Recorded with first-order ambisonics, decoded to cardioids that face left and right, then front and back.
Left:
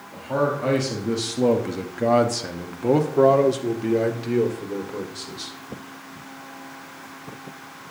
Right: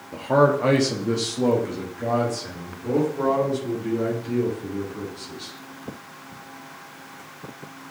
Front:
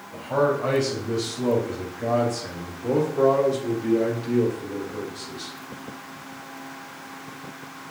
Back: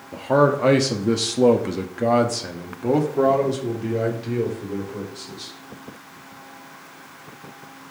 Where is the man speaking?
150° right, 1.3 m; by 5.5 s 95° left, 3 m.